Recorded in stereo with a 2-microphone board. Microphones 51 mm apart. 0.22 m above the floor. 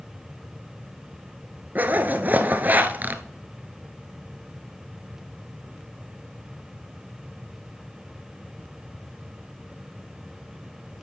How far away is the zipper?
About 0.7 m.